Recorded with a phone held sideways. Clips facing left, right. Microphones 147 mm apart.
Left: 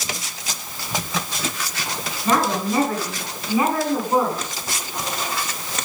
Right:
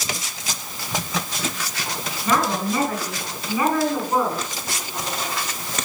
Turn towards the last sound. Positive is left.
turn(degrees=20)  # may be behind; listen again after turning